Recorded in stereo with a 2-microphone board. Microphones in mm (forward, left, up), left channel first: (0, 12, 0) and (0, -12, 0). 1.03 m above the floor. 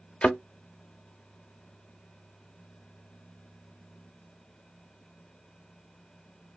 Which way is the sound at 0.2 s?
50° left (ahead or behind).